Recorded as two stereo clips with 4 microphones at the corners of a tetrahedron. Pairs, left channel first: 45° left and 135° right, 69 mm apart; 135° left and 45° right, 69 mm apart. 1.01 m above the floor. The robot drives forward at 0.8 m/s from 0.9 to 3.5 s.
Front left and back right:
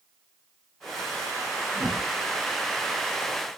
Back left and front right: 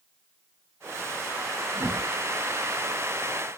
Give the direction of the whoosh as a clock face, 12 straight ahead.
2 o'clock.